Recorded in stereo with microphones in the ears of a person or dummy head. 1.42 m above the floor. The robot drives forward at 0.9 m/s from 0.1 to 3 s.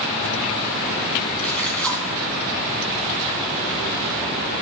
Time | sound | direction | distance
1.4 | a splash | 10° left (ahead or behind) | 3 m